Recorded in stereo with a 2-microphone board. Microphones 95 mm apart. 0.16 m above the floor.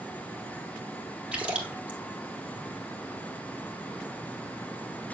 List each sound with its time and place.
1.3 s a splash: 10° right (ahead or behind), 2.0 m